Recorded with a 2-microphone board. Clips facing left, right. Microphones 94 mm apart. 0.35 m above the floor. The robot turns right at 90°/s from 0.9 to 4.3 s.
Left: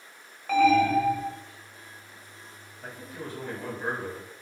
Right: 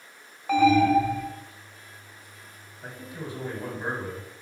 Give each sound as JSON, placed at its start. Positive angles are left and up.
{"t": 0.5, "sound": "an alarm", "azimuth_deg": -165, "distance_m": 0.7}
{"t": 2.8, "sound": "a man speaking", "side_deg": -5, "distance_m": 1.0}